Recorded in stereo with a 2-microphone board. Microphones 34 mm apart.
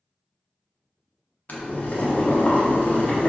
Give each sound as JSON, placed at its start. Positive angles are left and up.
{"t": 1.5, "sound": "boiling", "side_deg": 55, "distance_m": 0.5}